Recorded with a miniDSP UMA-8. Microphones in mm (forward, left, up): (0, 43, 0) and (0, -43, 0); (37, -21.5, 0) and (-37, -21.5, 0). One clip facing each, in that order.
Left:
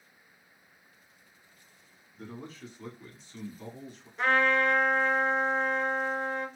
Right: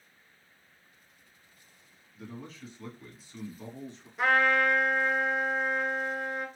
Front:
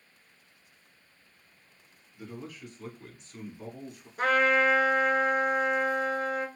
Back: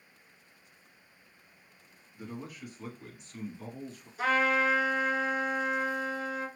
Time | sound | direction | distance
2.1 | a man speaking | 125° left | 1.4 m
4.2 | a trumpet | 5° right | 0.7 m